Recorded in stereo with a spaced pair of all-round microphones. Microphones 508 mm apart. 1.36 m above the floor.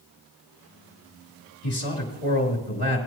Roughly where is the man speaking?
Left.